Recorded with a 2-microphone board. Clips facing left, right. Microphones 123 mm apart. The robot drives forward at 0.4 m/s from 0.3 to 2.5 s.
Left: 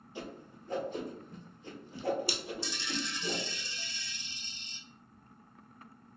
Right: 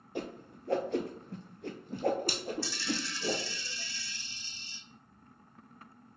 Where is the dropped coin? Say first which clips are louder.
Right 2 dB; 20° left (ahead or behind), 0.6 m.